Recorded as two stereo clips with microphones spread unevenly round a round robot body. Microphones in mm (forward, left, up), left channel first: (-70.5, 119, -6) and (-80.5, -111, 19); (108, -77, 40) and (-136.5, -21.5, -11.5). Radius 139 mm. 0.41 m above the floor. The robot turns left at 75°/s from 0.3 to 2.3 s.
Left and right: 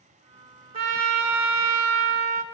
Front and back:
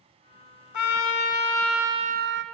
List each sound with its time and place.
0.7 s a trumpet: 30° right, 1.2 m; by 2.4 s 145° right, 1.2 m